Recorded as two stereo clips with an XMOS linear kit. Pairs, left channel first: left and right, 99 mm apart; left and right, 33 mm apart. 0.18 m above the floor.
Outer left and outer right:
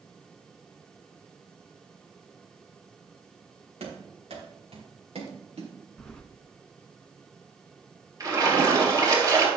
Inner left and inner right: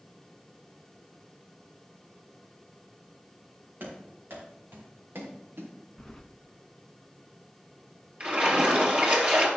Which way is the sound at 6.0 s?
10° left (ahead or behind).